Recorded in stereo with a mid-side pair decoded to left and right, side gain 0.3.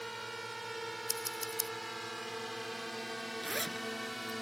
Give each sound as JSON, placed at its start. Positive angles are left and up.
{"t": 0.0, "sound": "a drone", "azimuth_deg": -10}
{"t": 1.1, "sound": "scissors", "azimuth_deg": 10}
{"t": 3.4, "sound": "a zipper", "azimuth_deg": -10}